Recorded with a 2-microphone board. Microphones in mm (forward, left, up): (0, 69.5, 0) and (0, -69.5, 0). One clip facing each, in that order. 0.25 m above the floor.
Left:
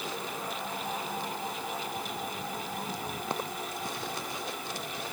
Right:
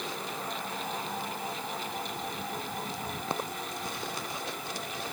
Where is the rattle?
I don't hear a rattle.